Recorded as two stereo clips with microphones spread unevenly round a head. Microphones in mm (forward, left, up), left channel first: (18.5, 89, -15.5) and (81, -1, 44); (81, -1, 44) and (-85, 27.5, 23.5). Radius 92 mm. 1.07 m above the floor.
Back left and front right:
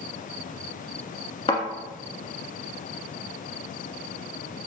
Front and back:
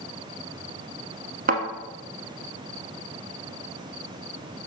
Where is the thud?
150° right, 1.3 m.